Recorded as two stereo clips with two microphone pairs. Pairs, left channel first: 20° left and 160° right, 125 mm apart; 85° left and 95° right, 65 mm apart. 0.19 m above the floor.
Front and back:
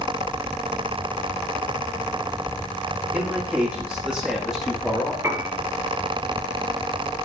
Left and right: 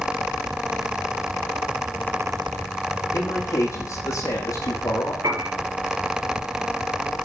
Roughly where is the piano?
Right.